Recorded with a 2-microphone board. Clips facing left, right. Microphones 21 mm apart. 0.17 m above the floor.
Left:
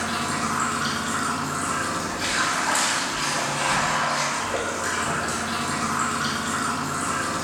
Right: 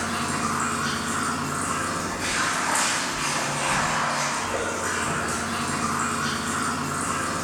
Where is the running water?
55° left (ahead or behind), 1.1 m.